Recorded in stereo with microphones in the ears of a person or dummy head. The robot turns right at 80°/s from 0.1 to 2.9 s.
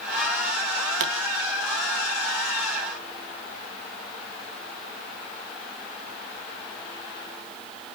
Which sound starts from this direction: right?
A pop, at 1.0 s.